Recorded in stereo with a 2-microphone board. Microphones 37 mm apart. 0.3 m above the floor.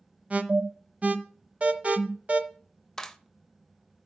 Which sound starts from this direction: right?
An alarm, at 0.3 s.